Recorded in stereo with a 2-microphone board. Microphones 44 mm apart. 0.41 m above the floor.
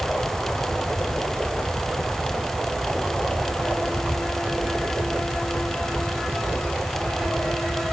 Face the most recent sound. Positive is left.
No sound to turn to.